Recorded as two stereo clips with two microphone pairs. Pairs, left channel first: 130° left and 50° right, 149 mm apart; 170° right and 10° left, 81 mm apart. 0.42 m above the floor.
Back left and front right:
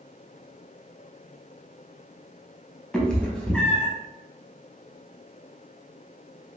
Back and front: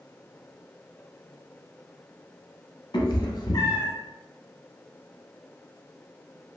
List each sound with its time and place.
2.9 s a cat meowing: 145° right, 0.6 m